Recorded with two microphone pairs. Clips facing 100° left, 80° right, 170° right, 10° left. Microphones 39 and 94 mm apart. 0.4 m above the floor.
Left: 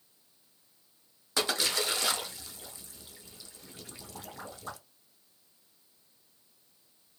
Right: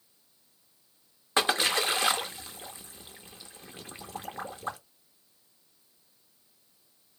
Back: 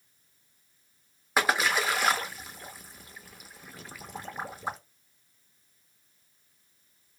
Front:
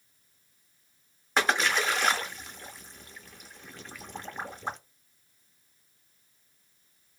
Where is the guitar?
I don't hear a guitar.